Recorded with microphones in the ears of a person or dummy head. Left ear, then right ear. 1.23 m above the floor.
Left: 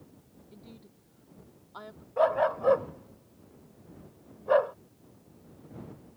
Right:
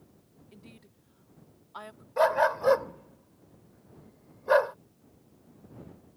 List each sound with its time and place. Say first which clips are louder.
0.5 s a woman speaking: left 1 dB; 75° right (ahead or behind)
2.2 s a dog barking: right 1 dB; 75° right (ahead or behind)